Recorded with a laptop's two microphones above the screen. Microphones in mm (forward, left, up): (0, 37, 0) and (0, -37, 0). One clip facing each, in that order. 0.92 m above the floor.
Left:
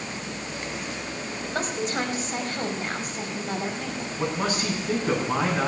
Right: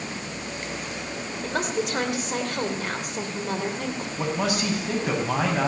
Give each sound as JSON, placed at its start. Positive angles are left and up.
{"t": 1.4, "sound": "a woman speaking", "side_deg": -80, "distance_m": 3.5}
{"t": 4.2, "sound": "a man speaking", "side_deg": -80, "distance_m": 6.5}